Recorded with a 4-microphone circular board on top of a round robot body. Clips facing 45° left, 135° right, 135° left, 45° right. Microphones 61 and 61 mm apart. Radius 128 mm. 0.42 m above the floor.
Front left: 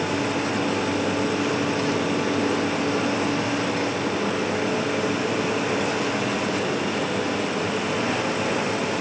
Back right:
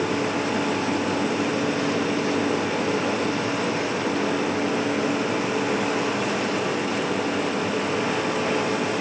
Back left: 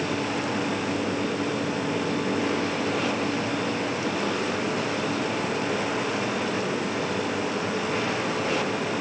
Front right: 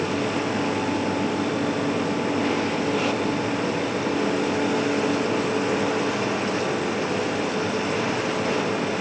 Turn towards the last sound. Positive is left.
No sound to turn to.